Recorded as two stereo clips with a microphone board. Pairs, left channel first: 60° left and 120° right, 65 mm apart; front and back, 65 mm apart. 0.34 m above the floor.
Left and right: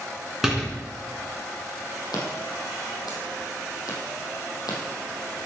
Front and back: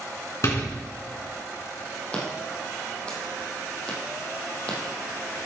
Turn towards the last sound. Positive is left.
turn(degrees=75)